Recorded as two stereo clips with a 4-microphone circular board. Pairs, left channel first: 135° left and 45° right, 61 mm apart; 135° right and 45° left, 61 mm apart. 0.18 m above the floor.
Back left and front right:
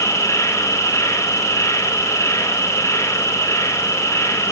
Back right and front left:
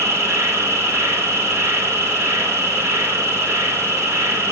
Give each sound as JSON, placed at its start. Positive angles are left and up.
{"t": 0.0, "sound": "an insect", "azimuth_deg": 90, "distance_m": 1.0}